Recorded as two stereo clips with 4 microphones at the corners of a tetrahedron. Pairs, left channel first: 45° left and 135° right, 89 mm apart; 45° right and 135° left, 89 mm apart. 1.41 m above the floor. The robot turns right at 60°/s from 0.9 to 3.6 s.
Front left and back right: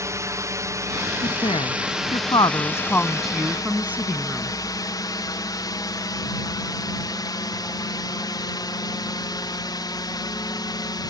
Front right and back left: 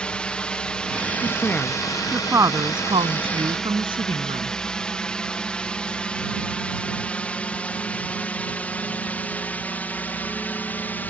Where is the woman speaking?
10° left; by 4.5 s 155° left.